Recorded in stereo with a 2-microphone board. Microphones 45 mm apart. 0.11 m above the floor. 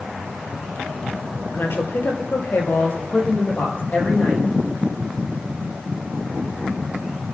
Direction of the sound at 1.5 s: 55° left (ahead or behind).